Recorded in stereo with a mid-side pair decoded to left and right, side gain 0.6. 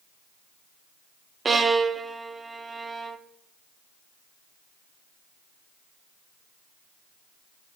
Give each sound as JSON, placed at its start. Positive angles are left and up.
{"t": 1.4, "sound": "a violin", "azimuth_deg": -25, "distance_m": 0.8}